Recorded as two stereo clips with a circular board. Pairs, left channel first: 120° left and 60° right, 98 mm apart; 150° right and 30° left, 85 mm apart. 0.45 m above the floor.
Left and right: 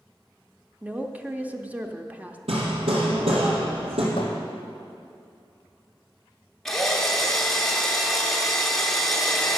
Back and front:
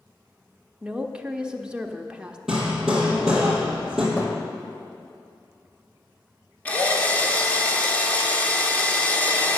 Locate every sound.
0.8 s a woman speaking: 25° right, 0.7 m
2.5 s hammering: 55° right, 3 m
4.2 s a thud: 150° left, 2.0 m
6.7 s a drill: 160° right, 1.2 m